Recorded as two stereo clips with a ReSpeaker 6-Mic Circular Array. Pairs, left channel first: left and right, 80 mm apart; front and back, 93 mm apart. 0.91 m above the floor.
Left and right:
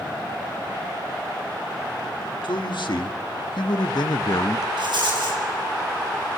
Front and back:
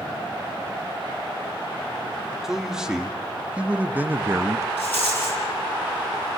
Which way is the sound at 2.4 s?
95° left.